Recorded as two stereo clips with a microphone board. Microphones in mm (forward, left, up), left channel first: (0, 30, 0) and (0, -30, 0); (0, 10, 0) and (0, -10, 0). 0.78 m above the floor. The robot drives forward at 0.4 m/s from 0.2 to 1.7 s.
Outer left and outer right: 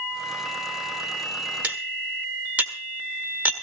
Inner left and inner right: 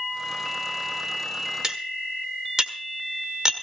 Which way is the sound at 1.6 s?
25° right (ahead or behind).